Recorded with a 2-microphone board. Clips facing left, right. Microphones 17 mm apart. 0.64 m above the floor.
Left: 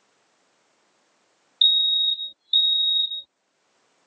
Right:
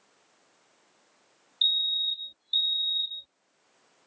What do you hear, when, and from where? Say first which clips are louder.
1.6 s a fire alarm: left 7 dB; 30° left (ahead or behind)